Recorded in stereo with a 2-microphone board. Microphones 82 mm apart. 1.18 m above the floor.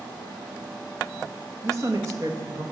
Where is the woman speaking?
40° right (ahead or behind), 1.7 m.